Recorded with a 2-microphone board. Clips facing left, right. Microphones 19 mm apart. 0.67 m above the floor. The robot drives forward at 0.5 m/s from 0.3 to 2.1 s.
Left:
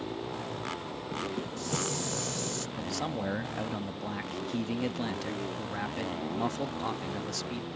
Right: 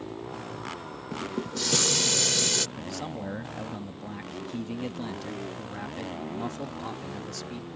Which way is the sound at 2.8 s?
15° left (ahead or behind).